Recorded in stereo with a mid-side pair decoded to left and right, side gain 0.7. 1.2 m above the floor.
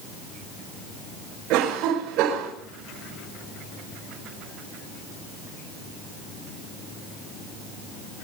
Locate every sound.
1.5 s a cough: 65° right, 4.5 m